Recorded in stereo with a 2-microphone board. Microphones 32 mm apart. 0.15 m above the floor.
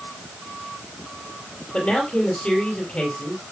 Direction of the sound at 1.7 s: 30° left (ahead or behind).